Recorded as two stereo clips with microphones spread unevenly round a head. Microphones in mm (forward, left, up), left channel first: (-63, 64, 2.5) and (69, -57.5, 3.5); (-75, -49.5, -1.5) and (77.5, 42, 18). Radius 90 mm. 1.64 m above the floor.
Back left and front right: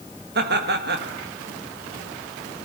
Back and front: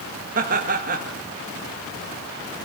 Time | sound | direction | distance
0.3 | laughter | 10° right | 1.9 m